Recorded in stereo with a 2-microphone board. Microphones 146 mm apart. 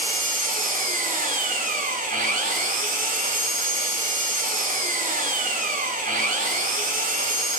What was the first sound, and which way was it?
An engine running, 75° right (ahead or behind).